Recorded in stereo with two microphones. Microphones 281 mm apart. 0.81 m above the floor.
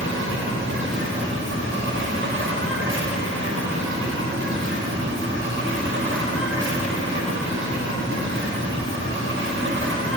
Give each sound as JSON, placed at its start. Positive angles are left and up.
{"t": 0.0, "sound": "an insect", "side_deg": -45, "distance_m": 1.2}